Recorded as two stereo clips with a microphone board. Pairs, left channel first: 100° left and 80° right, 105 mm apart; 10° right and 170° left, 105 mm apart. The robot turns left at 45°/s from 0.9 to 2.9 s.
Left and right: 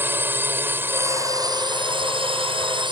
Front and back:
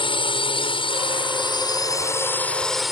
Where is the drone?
15° right; by 2.9 s 105° right.